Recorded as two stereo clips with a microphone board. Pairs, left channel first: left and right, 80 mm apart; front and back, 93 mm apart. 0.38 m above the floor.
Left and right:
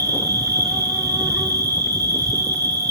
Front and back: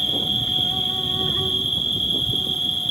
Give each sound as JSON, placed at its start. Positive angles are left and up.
{"t": 0.0, "sound": "an insect", "azimuth_deg": -95, "distance_m": 3.0}